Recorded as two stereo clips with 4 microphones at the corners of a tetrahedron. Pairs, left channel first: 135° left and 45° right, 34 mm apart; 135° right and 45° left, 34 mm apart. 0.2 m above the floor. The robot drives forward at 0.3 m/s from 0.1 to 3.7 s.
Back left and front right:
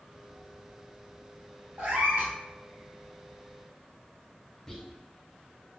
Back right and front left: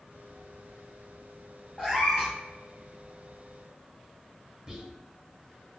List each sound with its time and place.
1.8 s a cat meowing: 40° right, 1.9 m; by 2.3 s 45° right, 1.7 m
4.7 s whispering: 95° left, 1.3 m